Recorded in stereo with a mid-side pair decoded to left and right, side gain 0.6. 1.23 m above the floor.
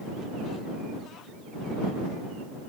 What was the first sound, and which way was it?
Only background noise.